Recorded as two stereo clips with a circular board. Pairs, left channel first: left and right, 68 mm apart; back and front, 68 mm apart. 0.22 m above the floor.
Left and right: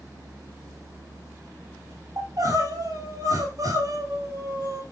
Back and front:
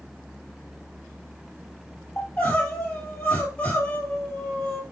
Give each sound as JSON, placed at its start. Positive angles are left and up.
{"t": 2.2, "sound": "crying", "azimuth_deg": -110, "distance_m": 2.5}